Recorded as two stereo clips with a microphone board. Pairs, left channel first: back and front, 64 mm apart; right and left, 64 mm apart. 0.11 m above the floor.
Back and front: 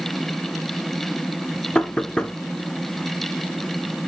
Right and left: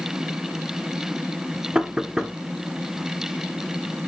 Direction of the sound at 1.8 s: 140° left.